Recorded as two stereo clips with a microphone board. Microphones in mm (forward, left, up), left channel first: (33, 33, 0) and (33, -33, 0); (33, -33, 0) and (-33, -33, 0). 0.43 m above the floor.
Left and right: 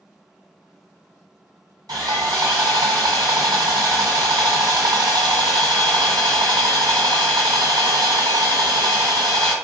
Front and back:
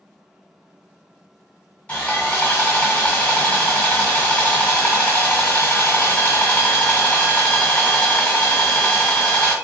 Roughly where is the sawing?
Right.